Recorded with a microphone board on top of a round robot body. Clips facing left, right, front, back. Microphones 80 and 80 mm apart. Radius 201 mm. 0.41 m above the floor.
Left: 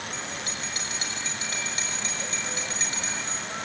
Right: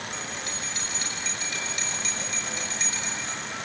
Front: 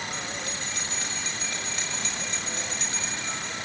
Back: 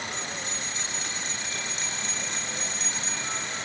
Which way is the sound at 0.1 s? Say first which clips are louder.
Even, front 1 dB; 45° left.